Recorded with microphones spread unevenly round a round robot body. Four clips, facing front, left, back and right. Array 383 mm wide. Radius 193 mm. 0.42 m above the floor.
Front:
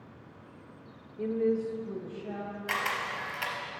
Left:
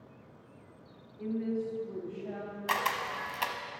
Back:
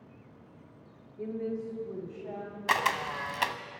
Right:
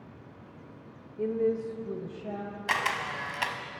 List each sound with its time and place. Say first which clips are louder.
1.2 s a woman speaking: right 6 dB, front 6 dB; 70° right, 1.2 m; by 2.6 s 100° right, 2.5 m
2.7 s a camera shutter: right 1 dB, back 5 dB; 150° right, 0.5 m